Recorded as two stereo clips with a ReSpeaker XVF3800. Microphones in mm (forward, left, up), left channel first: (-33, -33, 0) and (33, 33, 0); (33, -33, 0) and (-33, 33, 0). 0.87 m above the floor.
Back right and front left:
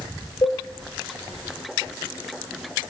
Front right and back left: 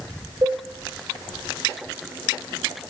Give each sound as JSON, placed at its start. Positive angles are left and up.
{"t": 0.4, "sound": "a cowbell", "azimuth_deg": -175, "distance_m": 0.6}